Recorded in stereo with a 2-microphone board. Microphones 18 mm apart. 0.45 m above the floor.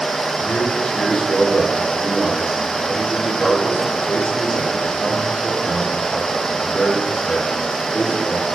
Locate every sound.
0.4 s a man speaking: 55° left (ahead or behind), 6 m